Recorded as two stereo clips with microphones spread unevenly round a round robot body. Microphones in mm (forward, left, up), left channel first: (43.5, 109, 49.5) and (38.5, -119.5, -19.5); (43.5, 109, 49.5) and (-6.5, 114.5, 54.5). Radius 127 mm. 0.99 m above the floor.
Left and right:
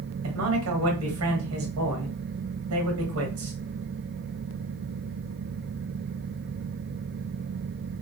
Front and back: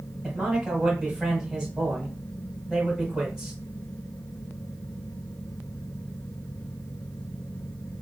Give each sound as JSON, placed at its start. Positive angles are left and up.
{"t": 0.2, "sound": "a man speaking", "azimuth_deg": -90, "distance_m": 1.8}